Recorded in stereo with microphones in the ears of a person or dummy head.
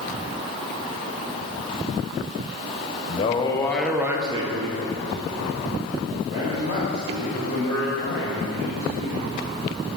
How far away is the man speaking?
About 0.8 m.